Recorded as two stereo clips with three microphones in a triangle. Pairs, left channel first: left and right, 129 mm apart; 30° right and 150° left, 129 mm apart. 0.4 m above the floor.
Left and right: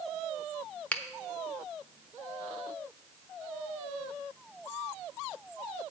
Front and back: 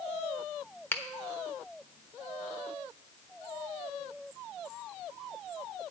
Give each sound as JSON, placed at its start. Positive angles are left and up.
{"t": 0.9, "sound": "a finger snap", "azimuth_deg": 25, "distance_m": 1.0}